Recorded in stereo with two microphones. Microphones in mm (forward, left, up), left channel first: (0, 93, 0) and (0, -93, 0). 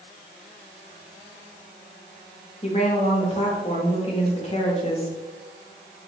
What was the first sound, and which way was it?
A woman speaking, 30° left (ahead or behind).